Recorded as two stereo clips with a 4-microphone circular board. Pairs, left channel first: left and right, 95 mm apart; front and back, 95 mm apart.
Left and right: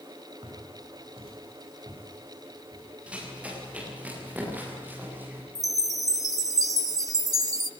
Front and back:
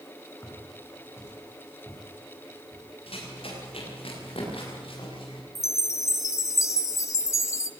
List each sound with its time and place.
0.4 s footsteps: 65° right, 7.5 m
3.1 s running footsteps: 10° right, 8.5 m; by 5.5 s 20° right, 8 m
5.5 s a chime: 50° right, 0.5 m